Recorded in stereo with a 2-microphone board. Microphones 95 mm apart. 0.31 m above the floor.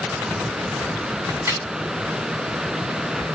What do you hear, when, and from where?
1.3 s a crack: 30° right (ahead or behind), 2 m